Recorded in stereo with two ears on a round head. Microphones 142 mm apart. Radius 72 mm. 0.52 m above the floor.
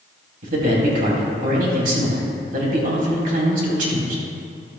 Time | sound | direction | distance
0.4 | a man speaking | 60° right (ahead or behind) | 3 m